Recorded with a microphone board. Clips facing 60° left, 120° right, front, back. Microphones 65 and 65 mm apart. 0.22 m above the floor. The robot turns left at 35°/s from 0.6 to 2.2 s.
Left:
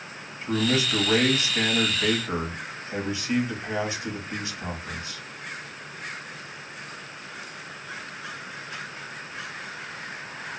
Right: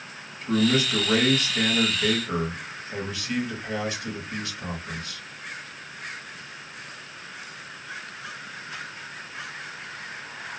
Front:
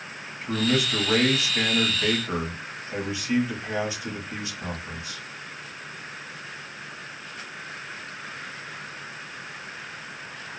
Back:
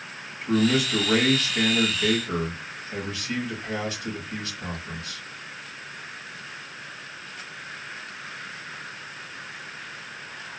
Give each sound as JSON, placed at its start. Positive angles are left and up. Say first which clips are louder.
{"t": 0.4, "sound": "a man speaking", "louder": "right 2 dB, back 3 dB", "azimuth_deg": 100, "distance_m": 1.0}